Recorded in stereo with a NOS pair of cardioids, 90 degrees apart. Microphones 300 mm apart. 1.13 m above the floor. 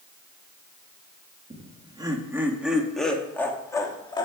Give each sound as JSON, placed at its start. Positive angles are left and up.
{"t": 1.5, "sound": "laughter", "azimuth_deg": -20, "distance_m": 1.9}